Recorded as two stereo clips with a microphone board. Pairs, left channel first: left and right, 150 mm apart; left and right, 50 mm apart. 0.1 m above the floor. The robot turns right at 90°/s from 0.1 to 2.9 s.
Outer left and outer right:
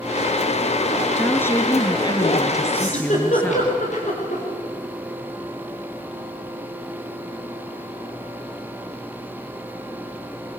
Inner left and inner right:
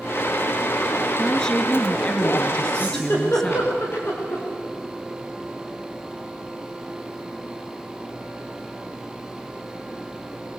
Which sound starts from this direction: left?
A giggle, at 2.7 s.